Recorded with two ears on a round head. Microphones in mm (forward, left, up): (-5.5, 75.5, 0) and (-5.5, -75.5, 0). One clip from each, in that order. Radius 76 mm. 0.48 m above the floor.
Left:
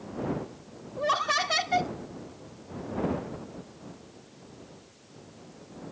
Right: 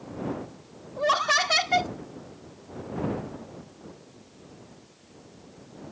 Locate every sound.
1.0 s laughter: 20° right (ahead or behind)